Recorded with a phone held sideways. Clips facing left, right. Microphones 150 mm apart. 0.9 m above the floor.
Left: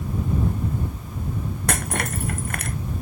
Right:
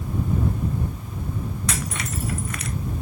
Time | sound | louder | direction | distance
1.7 | breaking glass | left 7 dB | 55° left (ahead or behind) | ?